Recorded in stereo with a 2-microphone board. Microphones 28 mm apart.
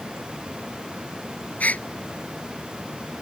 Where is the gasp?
60° left (ahead or behind).